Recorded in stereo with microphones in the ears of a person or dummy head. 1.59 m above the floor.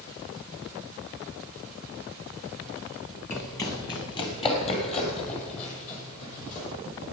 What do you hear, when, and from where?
3.3 s running footsteps: 15° left (ahead or behind), 2.0 m; by 6.7 s 45° left (ahead or behind), 4 m